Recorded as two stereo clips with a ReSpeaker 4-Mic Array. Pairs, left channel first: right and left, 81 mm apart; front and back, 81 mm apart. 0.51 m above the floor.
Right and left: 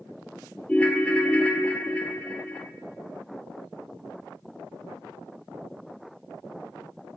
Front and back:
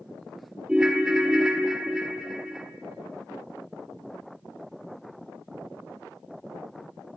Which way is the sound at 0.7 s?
120° right.